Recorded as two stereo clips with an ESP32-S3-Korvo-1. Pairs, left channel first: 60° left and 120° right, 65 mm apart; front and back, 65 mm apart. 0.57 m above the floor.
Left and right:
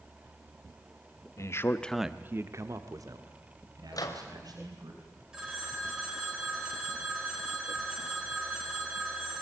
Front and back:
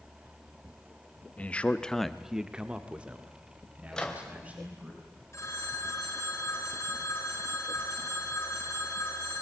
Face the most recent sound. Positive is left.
turn(degrees=-40)